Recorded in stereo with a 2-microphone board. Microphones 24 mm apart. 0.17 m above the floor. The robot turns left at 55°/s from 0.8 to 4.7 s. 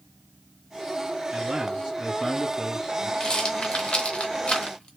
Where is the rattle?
35° left (ahead or behind), 2 m.